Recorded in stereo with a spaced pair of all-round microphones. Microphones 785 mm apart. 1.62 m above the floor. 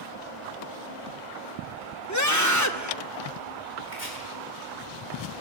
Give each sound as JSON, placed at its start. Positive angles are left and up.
{"t": 2.1, "sound": "a scream", "side_deg": 20, "distance_m": 1.4}
{"t": 3.9, "sound": "chopping", "side_deg": 50, "distance_m": 7.0}